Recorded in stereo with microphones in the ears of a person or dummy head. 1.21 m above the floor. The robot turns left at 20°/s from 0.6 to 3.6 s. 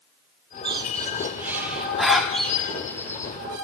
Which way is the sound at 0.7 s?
20° right (ahead or behind).